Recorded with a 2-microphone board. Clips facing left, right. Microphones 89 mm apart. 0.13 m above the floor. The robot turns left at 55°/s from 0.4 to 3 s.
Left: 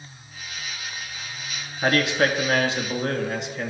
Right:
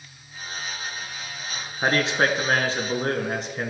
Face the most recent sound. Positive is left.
turn(degrees=-100)